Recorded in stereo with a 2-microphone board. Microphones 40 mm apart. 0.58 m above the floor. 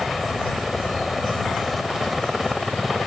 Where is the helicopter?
Centre (ahead or behind).